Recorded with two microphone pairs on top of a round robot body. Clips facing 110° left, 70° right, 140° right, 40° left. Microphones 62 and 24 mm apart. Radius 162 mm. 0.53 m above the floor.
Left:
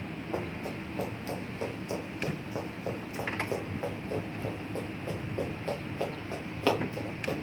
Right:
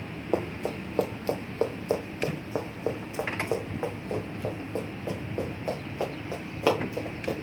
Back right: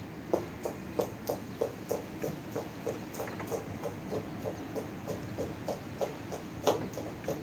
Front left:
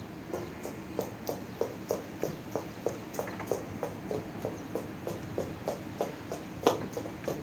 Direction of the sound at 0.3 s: 75° right.